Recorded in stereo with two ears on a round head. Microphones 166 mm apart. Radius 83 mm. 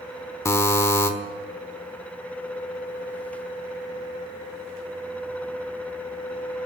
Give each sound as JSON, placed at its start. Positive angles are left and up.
{"t": 0.5, "sound": "a buzzer", "side_deg": 15, "distance_m": 1.1}